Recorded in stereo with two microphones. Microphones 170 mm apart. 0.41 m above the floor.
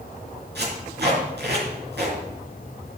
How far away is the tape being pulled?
About 5 m.